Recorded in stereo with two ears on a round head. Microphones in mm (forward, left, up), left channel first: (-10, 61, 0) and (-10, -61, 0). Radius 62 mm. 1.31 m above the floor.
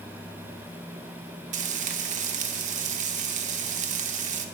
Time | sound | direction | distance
1.5 | frying | 55° right (ahead or behind) | 0.8 m